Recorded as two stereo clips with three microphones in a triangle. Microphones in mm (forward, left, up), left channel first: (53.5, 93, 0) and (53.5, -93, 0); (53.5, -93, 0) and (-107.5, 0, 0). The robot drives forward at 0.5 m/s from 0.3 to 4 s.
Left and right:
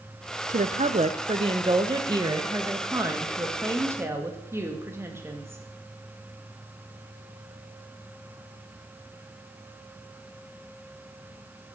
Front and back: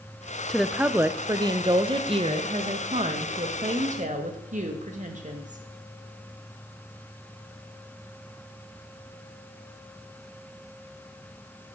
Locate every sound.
0.5 s a woman speaking: 115° right, 0.7 m; by 5.6 s 165° right, 2 m